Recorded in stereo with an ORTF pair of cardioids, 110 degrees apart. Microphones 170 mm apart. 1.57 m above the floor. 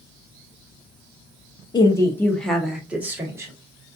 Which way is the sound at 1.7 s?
25° left.